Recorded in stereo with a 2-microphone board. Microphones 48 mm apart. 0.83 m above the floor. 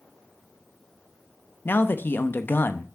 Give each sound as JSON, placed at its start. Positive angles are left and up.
{"t": 1.6, "sound": "a man speaking", "side_deg": 45, "distance_m": 0.8}